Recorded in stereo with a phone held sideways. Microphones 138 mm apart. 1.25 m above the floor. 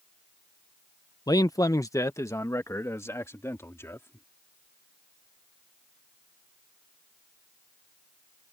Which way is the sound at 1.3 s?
30° left (ahead or behind).